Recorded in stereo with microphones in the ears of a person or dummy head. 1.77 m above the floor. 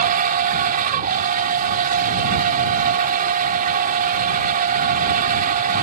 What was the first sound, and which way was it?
A machine running, 50° right (ahead or behind).